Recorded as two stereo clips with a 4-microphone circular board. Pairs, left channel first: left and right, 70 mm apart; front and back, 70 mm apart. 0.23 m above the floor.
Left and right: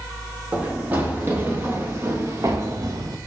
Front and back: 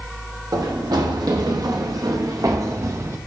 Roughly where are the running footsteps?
Behind right.